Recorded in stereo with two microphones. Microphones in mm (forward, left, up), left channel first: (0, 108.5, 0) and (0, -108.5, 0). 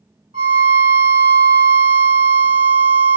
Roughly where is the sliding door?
No sliding door in this recording.